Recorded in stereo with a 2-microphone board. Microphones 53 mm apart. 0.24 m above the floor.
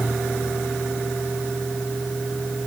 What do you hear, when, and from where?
Only background noise.